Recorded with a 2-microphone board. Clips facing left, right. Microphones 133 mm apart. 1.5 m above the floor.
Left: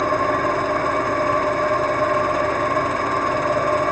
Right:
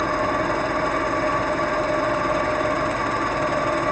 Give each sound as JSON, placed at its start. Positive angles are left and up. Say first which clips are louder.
{"t": 0.0, "sound": "an engine running", "louder": "left 3 dB", "side_deg": 60, "distance_m": 4.0}